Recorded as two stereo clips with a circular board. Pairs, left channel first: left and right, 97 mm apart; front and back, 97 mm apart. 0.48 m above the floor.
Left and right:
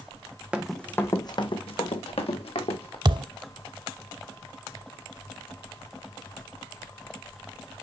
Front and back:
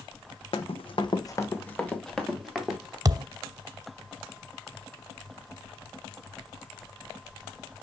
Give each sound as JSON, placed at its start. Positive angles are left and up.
{"t": 0.5, "sound": "running footsteps", "azimuth_deg": -10, "distance_m": 1.2}
{"t": 3.0, "sound": "a thud", "azimuth_deg": -130, "distance_m": 0.6}